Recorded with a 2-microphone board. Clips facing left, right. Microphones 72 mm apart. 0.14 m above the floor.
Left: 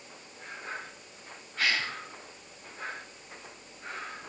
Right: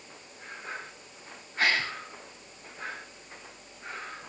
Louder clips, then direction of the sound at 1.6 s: Right 3 dB; 25° right (ahead or behind).